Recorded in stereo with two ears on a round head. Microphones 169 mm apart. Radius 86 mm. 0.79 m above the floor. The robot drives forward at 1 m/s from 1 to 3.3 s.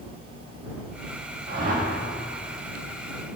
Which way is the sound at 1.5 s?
55° right (ahead or behind).